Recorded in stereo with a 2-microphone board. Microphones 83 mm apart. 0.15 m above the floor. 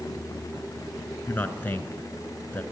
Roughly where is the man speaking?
Left.